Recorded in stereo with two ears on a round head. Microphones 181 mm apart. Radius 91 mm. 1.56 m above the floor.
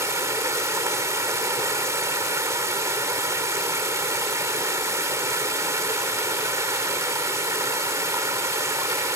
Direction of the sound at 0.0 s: 15° right (ahead or behind).